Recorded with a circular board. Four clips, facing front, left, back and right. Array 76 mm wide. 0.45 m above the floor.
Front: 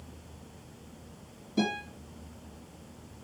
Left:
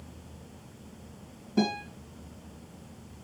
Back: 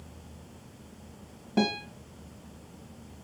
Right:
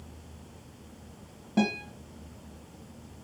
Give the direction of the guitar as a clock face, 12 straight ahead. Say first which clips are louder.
Even, back 2 dB; 5 o'clock.